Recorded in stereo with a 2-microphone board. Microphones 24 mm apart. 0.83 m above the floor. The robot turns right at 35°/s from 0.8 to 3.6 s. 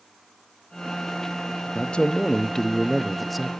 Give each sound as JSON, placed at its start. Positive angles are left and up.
{"t": 1.8, "sound": "a man speaking", "azimuth_deg": 120, "distance_m": 0.6}